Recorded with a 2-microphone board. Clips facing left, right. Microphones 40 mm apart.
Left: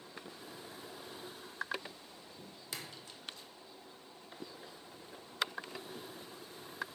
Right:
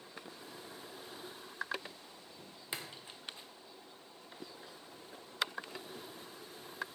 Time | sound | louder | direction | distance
2.7 | a splash | right 2 dB | 25° right (ahead or behind) | 0.9 m